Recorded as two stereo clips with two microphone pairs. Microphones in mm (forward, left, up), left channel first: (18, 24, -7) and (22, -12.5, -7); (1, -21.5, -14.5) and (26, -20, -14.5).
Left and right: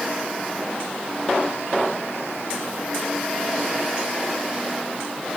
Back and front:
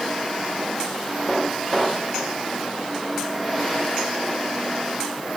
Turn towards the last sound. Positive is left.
No sound to turn to.